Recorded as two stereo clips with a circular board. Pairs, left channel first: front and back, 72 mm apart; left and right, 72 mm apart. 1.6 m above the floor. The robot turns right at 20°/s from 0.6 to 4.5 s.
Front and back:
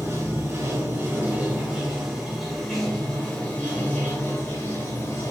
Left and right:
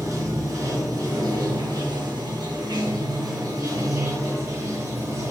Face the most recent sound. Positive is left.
turn(degrees=-50)